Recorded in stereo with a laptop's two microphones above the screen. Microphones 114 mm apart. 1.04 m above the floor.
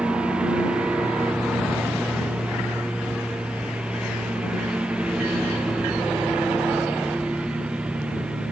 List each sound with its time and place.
0.0 s a lawn mower: 10° right (ahead or behind)